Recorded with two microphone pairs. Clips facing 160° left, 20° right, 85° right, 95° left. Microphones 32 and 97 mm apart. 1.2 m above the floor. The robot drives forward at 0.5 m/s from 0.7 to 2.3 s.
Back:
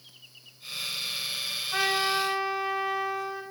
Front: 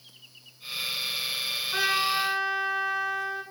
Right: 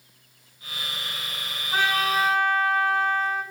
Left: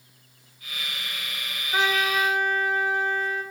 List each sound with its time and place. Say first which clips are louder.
1.7 s a trumpet: even, right 1 dB; 125° right, 5.5 m